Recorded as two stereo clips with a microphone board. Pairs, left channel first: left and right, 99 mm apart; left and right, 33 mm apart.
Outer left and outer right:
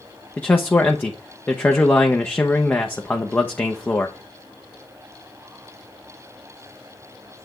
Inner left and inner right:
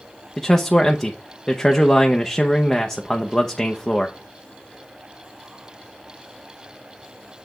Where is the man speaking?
20° left (ahead or behind), 0.8 m.